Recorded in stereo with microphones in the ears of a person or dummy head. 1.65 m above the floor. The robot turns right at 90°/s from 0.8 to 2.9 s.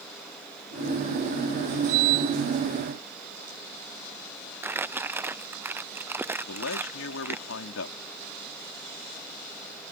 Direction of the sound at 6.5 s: 85° left.